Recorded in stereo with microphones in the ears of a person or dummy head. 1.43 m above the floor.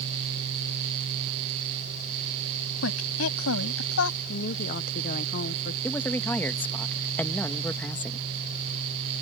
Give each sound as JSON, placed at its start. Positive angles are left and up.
{"t": 2.8, "sound": "a woman speaking", "side_deg": 80}
{"t": 4.3, "sound": "a woman speaking", "side_deg": 50}
{"t": 5.8, "sound": "a man speaking", "side_deg": 10}